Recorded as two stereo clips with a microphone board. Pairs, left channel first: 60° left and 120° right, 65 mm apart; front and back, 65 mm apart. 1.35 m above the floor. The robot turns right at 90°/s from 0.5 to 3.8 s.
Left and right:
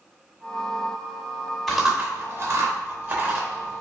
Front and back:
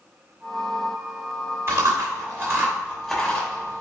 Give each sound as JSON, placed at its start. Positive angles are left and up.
{"t": 1.7, "sound": "chewing", "azimuth_deg": 145, "distance_m": 1.1}